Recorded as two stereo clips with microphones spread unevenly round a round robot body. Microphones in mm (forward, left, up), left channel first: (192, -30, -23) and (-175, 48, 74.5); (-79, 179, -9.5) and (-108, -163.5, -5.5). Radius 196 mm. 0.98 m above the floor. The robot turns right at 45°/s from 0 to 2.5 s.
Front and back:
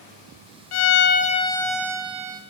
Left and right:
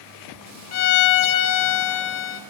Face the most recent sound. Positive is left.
turn(degrees=125)